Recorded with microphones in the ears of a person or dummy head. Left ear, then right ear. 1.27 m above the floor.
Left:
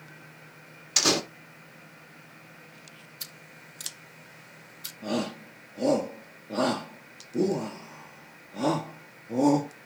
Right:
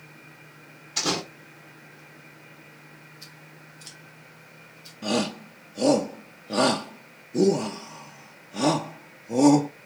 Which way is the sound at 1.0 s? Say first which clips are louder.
Left 3 dB; 50° left (ahead or behind).